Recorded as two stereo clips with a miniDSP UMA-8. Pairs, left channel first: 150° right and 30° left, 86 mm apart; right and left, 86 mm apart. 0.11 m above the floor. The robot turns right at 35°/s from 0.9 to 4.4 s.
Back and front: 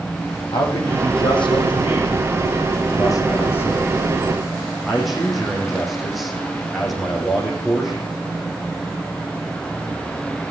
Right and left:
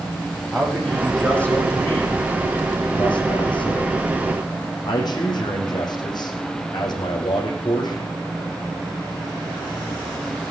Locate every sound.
0.5 s a man speaking: straight behind, 4.5 m; by 8.1 s 60° right, 4.5 m